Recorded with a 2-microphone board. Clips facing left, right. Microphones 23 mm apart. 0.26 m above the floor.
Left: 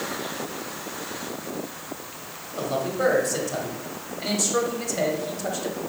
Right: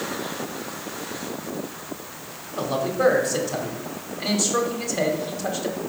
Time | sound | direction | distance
2.5 | a man speaking | 10° right (ahead or behind) | 1.1 m